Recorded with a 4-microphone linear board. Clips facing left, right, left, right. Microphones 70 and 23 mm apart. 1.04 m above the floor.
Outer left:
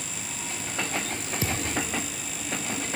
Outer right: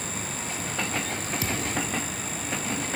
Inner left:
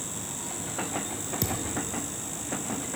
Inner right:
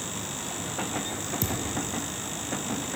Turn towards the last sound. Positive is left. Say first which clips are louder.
# outer left 2 dB, even
turn(degrees=30)  # may be behind; listen again after turning